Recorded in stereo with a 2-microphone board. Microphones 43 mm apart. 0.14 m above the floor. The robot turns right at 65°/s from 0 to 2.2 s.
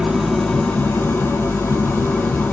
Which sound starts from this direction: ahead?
An engine running, at 0.0 s.